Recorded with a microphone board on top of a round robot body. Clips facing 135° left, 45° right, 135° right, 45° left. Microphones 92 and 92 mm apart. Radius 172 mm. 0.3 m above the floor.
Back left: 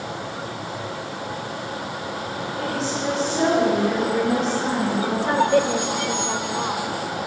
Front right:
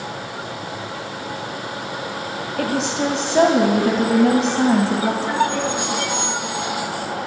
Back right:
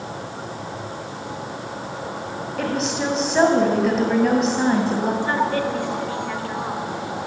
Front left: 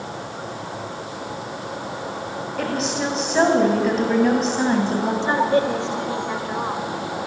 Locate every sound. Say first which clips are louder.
2.6 s a woman speaking: front right 6 dB, back right 1 dB; 45° right, 2.5 m
5.2 s a woman speaking: back left 2 dB, front left 3 dB; 110° left, 2 m